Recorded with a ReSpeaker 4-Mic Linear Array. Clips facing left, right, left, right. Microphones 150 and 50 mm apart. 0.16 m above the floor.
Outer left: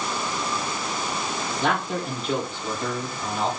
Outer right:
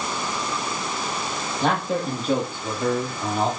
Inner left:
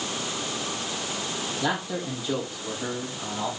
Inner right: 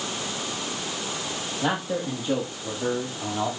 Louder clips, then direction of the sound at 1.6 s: Outer right 3 dB, inner right 3 dB; 35° right (ahead or behind).